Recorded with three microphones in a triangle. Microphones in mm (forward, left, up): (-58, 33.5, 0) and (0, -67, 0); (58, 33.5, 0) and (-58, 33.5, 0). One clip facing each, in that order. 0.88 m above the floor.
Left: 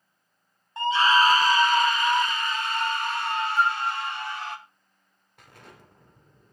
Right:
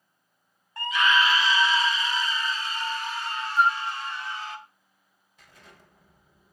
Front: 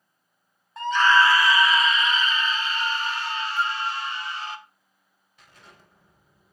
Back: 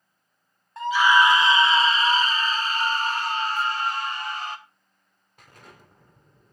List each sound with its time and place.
0.8 s a scream: 90° left, 0.6 m; by 4.6 s 140° left, 2.5 m
3.6 s a flute: 10° left, 1.7 m
5.4 s an explosion: 145° left, 3 m